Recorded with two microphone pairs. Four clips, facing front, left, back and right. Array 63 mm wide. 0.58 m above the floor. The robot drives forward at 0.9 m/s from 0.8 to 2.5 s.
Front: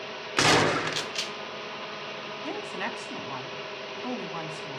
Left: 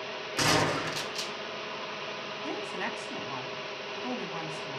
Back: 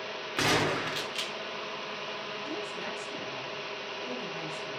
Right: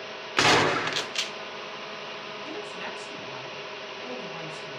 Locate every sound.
0.4 s a gunshot: 60° right, 1.1 m; by 1.3 s 90° right, 1.0 m
2.4 s a woman speaking: 20° left, 2.5 m